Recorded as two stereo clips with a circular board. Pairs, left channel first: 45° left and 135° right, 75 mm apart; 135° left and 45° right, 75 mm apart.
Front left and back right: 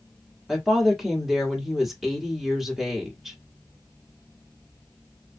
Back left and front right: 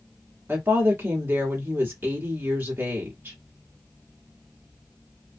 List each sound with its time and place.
0.5 s a woman speaking: 50° right, 1.1 m